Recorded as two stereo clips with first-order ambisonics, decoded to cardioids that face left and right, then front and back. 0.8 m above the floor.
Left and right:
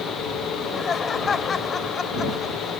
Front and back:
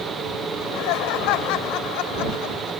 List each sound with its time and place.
0.5 s laughter: 20° left